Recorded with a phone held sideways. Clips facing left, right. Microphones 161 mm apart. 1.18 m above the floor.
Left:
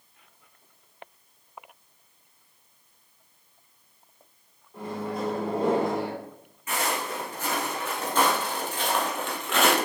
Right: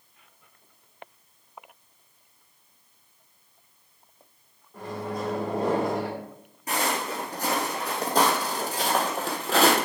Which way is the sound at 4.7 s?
5° left (ahead or behind).